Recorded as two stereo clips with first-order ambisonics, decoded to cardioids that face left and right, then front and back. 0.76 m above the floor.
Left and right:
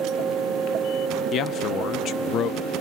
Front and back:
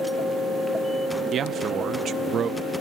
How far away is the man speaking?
About 0.8 m.